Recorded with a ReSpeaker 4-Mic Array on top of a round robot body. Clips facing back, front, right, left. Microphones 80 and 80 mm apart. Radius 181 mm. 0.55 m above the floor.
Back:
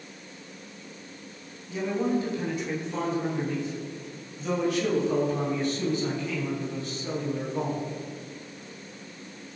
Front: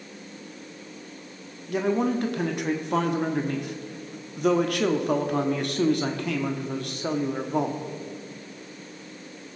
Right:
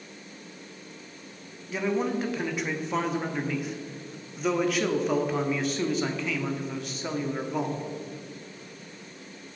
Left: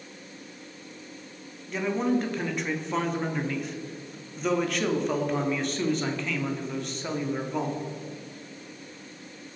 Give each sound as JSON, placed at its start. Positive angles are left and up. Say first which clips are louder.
{"t": 1.7, "sound": "a man speaking", "louder": "front 3 dB, left 1 dB", "azimuth_deg": 0, "distance_m": 1.6}